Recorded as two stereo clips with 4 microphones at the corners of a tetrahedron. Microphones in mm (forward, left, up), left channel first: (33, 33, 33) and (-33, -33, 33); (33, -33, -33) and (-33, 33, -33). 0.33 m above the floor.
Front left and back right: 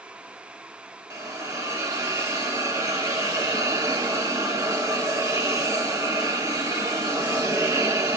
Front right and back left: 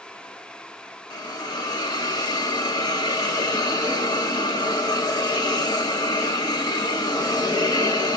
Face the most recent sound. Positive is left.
turn(degrees=-85)